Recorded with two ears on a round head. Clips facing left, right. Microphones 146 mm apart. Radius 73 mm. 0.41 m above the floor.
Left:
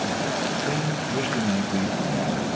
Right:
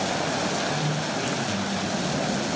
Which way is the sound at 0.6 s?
70° left (ahead or behind).